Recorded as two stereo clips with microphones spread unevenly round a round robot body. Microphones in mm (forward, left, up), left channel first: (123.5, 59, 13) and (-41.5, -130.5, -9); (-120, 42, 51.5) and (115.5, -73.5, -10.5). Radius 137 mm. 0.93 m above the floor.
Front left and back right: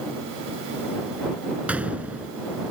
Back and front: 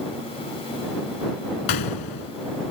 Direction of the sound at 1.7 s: 145° left.